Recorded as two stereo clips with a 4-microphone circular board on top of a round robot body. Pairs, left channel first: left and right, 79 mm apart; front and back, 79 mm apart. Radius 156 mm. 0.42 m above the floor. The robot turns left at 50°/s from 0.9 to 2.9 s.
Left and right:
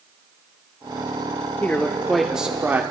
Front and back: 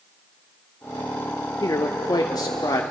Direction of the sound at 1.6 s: 30° left.